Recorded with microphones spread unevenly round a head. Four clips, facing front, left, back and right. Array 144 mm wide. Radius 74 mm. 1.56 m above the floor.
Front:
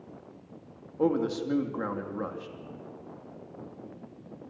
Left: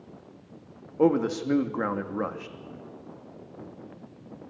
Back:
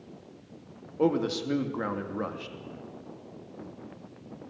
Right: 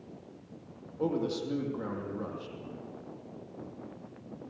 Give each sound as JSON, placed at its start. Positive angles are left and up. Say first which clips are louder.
{"t": 1.0, "sound": "a man speaking", "louder": "left 8 dB, back 1 dB", "azimuth_deg": 110, "distance_m": 2.5}